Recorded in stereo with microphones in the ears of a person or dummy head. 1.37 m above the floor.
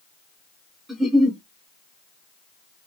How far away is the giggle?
About 0.8 m.